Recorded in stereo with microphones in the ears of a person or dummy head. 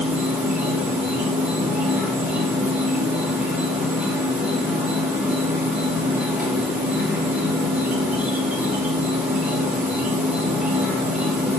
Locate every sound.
0.0 s an insect: 5° right (ahead or behind), 2.5 m